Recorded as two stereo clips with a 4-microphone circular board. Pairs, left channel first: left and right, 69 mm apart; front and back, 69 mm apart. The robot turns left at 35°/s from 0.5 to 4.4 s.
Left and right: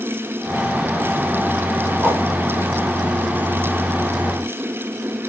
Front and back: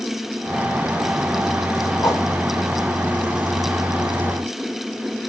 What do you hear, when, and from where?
2.0 s a whoosh: 30° right, 1.6 m; by 2.2 s 35° right, 1.6 m